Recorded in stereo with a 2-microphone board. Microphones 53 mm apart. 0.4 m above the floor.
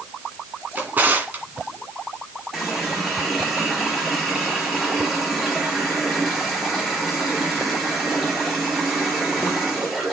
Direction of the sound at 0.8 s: 35° right (ahead or behind).